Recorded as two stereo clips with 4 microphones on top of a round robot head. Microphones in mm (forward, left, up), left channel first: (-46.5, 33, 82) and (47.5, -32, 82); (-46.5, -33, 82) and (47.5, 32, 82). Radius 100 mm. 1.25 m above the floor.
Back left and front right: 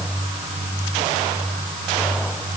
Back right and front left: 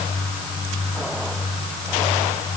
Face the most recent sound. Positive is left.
No sound to turn to.